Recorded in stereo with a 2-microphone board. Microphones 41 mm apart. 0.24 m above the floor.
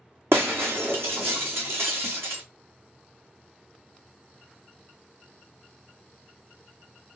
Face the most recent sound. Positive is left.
turn(degrees=-85)